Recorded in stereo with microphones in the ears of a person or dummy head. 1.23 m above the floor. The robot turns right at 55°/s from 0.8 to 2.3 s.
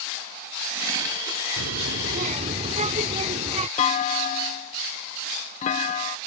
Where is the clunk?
35° left (ahead or behind).